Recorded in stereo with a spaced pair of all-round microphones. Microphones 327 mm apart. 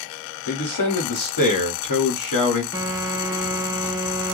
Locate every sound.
0.5 s a man speaking: 85° left, 1.0 m
2.7 s a phone buzzing: 10° right (ahead or behind), 1.0 m